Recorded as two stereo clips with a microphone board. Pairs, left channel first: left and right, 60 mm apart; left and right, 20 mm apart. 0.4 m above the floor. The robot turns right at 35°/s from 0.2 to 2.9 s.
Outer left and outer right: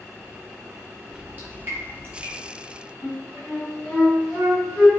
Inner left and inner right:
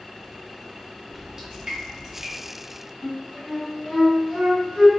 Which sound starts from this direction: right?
Dripping, at 1.1 s.